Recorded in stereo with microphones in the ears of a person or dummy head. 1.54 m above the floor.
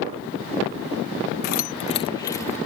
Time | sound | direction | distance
1.4 | keys jangling | 50° left (ahead or behind) | ?